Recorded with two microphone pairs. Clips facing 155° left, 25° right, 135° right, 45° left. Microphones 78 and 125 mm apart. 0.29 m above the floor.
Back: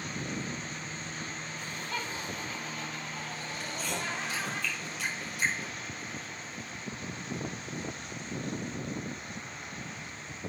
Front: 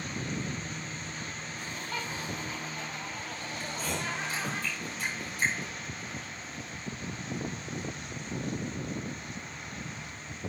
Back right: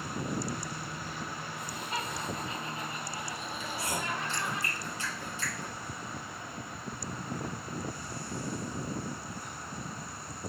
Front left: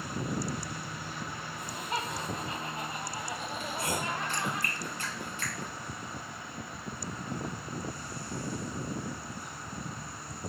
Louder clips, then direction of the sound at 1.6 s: Even, front left 3 dB; 25° left.